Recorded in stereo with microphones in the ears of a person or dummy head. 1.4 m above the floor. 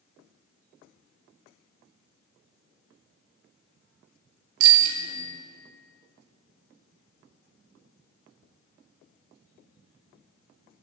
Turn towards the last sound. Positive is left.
turn(degrees=-55)  # may be behind; listen again after turning